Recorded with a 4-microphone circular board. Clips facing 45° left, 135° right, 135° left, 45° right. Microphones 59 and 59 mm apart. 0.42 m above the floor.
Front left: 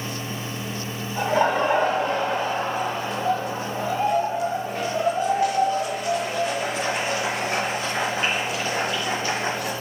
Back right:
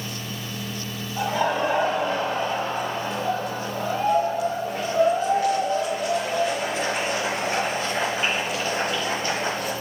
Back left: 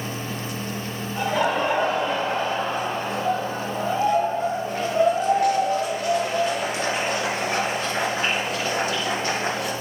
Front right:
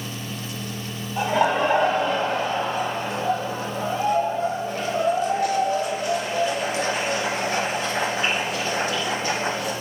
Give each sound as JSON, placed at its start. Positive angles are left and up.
{"t": 1.2, "sound": "laughter", "azimuth_deg": 35, "distance_m": 1.0}